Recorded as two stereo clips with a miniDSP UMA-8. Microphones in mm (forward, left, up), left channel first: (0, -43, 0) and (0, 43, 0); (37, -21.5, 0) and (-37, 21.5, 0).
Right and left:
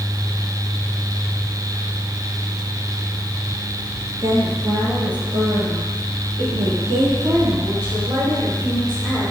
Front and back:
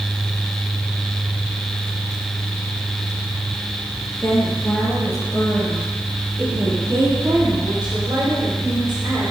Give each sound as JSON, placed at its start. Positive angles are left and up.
{"t": 4.2, "sound": "a woman speaking", "azimuth_deg": 35, "distance_m": 4.0}